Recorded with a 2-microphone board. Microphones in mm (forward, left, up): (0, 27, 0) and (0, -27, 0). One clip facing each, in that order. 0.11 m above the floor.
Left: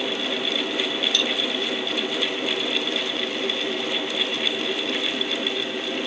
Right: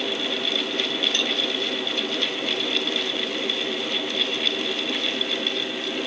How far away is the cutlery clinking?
About 2.5 m.